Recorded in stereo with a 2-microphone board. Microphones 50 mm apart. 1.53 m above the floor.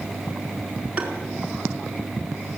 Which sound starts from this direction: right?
Tapping, at 1.0 s.